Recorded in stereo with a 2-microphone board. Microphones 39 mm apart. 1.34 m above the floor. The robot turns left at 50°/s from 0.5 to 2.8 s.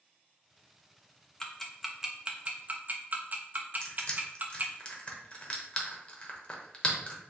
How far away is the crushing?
About 0.8 m.